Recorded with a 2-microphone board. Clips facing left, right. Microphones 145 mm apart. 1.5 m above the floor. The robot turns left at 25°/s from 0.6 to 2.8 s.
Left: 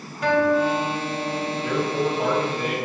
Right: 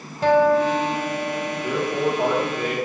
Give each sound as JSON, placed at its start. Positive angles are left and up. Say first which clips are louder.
{"t": 0.2, "sound": "a guitar", "louder": "right 3 dB", "azimuth_deg": -60, "distance_m": 1.5}
{"t": 1.6, "sound": "a man speaking", "louder": "right 1 dB", "side_deg": -25, "distance_m": 2.5}